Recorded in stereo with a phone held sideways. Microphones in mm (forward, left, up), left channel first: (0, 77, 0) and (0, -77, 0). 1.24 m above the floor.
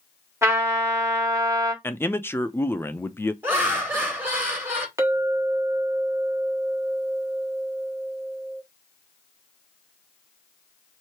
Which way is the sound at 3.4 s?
15° right (ahead or behind).